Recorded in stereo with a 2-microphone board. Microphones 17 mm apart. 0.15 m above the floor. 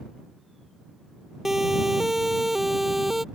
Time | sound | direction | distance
1.4 | a siren | 20° right (ahead or behind) | ?